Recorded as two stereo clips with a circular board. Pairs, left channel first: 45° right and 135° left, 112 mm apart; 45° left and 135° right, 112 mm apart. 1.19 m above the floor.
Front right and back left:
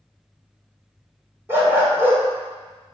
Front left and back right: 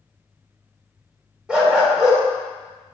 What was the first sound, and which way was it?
A dog barking, 155° left.